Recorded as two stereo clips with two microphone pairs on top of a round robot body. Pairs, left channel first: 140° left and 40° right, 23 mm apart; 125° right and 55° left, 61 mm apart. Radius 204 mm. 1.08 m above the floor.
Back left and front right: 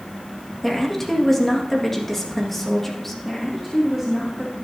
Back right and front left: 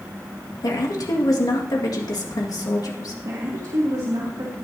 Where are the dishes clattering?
I don't hear dishes clattering.